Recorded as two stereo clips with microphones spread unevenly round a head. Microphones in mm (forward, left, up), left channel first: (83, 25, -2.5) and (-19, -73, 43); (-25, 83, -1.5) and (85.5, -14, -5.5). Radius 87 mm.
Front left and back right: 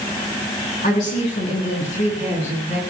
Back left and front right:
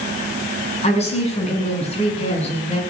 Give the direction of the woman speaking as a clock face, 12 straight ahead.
9 o'clock.